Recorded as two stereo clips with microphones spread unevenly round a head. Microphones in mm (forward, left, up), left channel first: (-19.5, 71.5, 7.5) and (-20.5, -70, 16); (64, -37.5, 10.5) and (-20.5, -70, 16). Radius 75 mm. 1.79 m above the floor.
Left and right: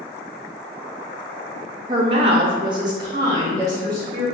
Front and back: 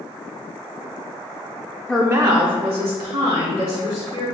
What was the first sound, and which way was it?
A woman speaking, 55° right.